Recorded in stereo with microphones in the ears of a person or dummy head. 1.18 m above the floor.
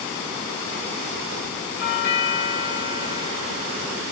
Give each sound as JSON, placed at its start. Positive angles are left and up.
{"t": 1.8, "sound": "a doorbell", "side_deg": 55, "distance_m": 1.7}